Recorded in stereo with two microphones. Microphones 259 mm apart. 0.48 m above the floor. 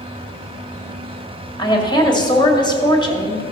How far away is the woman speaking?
About 1.9 m.